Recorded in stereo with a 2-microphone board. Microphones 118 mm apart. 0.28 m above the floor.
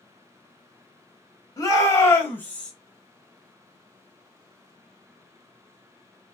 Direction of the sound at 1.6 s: 30° left (ahead or behind).